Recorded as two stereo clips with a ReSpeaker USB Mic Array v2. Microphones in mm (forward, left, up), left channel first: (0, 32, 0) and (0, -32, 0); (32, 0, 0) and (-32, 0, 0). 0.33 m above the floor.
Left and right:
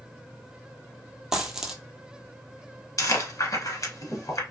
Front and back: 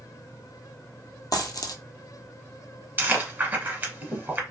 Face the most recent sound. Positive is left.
turn(degrees=120)